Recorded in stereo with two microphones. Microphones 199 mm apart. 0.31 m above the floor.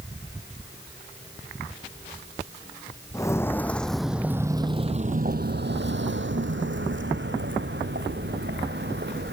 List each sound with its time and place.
3.1 s footsteps: 15° left (ahead or behind), 1.1 m; by 9.3 s 60° right (ahead or behind), 2.5 m